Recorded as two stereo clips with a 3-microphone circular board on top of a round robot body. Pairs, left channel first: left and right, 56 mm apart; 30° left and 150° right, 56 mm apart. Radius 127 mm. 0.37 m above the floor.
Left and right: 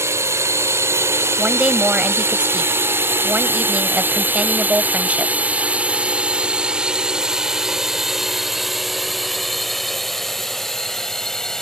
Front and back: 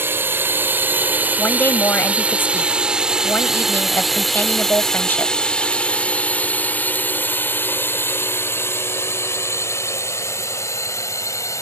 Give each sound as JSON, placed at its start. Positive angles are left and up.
{"t": 0.0, "sound": "a drone", "azimuth_deg": -110}
{"t": 1.4, "sound": "a woman speaking", "azimuth_deg": -25}